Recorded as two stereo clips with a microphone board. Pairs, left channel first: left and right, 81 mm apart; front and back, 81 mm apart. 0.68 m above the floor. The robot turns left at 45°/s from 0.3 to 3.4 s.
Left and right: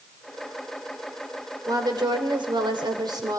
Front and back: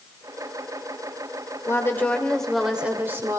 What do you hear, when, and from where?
1.7 s a woman speaking: 50° right, 2.5 m; by 3.4 s 130° right, 2.5 m